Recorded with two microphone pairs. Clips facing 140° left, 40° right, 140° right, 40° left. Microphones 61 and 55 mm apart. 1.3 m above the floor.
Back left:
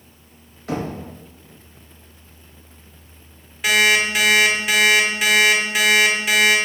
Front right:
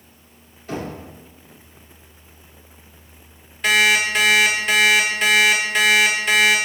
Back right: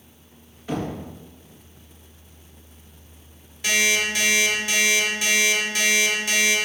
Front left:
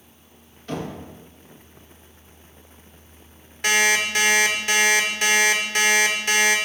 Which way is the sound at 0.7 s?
145° left.